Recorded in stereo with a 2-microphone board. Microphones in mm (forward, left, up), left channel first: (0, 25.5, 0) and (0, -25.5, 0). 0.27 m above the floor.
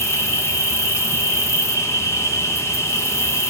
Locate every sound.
0.0 s an insect: 65° left (ahead or behind), 1.4 m